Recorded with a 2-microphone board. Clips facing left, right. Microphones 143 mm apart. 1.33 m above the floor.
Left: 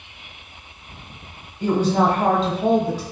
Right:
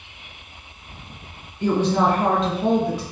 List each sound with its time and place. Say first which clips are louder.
1.6 s a woman speaking: left 1 dB; 25° left (ahead or behind), 1.0 m